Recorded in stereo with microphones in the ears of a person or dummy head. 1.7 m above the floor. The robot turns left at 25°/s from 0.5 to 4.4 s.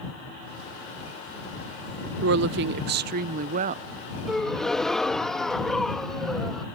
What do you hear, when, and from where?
2.2 s a woman speaking: 95° right; by 3.9 s 135° right
4.3 s a gasp: centre (ahead or behind); by 6.7 s 5° left (ahead or behind)